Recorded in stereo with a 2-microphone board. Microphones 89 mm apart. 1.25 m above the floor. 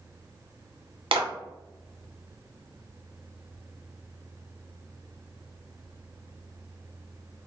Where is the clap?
85° right, 0.7 m.